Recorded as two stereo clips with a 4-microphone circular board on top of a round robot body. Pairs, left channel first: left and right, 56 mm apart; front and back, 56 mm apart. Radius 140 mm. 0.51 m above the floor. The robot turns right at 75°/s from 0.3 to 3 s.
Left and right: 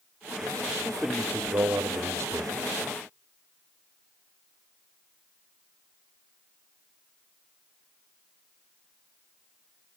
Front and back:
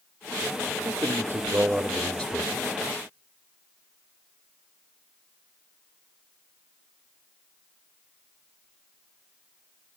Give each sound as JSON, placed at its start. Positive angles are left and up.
{"t": 0.8, "sound": "a man speaking", "azimuth_deg": 175, "distance_m": 1.9}